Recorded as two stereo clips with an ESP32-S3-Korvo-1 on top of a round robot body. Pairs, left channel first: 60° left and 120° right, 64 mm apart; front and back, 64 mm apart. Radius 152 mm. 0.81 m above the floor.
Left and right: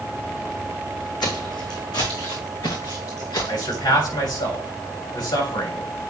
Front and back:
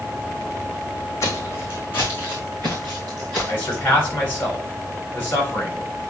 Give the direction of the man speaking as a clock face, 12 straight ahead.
10 o'clock.